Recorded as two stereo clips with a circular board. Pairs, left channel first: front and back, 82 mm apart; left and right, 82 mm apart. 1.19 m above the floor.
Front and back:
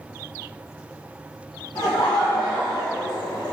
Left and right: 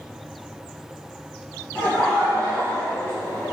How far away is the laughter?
About 0.9 m.